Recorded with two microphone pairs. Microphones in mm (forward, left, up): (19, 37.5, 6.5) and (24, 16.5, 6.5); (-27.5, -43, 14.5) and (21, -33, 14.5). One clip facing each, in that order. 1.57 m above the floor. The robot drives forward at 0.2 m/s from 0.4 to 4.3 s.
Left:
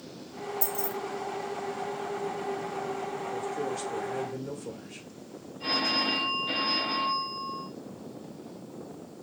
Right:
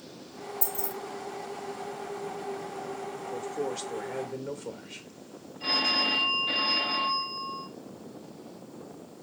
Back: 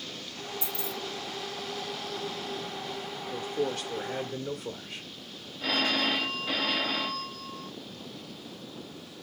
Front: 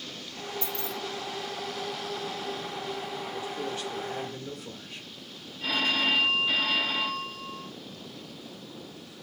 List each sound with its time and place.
0.6 s keys jangling: 130° left, 0.8 m; by 0.9 s 135° left, 0.8 m
3.3 s a man speaking: 140° right, 1.0 m; by 5.0 s 145° right, 1.2 m
5.6 s a phone ringing: 160° right, 2.5 m